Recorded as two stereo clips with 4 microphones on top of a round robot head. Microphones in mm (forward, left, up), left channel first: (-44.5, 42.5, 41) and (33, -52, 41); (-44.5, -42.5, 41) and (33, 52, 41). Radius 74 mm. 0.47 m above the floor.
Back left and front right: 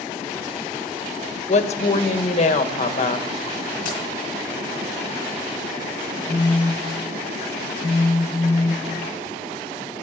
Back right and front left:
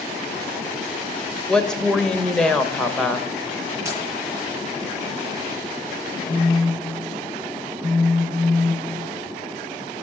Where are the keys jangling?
120° left, 10 m.